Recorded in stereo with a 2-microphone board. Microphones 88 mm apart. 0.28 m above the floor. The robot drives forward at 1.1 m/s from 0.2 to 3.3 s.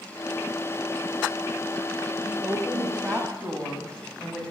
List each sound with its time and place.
2.2 s a woman speaking: 15° right (ahead or behind), 0.9 m; by 4.5 s 10° right (ahead or behind), 1.6 m